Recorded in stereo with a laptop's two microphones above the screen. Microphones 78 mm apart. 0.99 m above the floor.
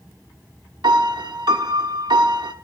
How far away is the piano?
About 0.9 m.